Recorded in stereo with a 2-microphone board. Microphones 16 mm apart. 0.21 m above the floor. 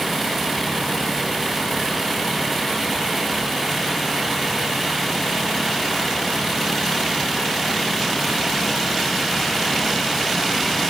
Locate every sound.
Only background noise.